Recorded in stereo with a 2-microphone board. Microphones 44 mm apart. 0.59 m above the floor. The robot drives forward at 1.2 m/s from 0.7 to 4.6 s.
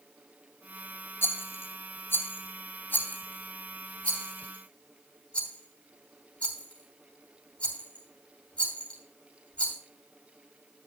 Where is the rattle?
75° left (ahead or behind), 2 m; by 9.8 s 25° left (ahead or behind), 4.5 m.